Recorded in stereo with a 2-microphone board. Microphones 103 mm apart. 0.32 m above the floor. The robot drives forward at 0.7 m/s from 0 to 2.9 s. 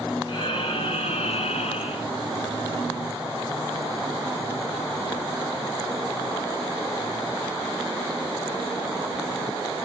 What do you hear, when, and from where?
0.3 s breathing: 40° left (ahead or behind), 1.1 m; by 2.1 s 60° left (ahead or behind), 0.9 m